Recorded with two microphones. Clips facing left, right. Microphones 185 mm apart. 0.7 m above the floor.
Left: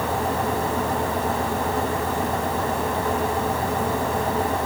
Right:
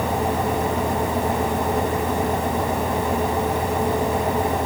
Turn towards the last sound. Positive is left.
No sound to turn to.